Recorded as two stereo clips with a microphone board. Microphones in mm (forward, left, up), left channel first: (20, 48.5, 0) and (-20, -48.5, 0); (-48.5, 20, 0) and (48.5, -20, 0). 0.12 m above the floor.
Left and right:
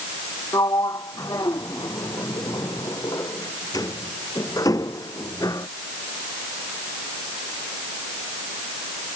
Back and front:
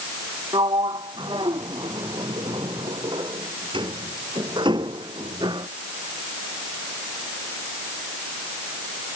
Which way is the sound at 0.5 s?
15° left.